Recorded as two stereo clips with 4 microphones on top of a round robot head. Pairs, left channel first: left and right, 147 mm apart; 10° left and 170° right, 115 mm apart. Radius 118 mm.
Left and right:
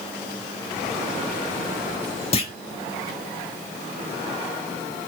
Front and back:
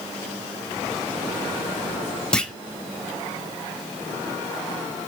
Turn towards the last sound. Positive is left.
turn(degrees=85)